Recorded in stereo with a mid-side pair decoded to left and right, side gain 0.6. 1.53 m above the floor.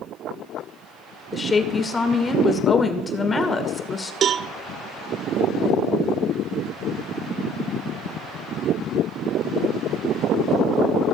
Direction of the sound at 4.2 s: 50° right.